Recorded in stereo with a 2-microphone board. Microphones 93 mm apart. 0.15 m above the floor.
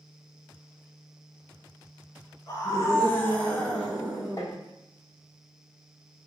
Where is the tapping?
35° left (ahead or behind), 1.1 m.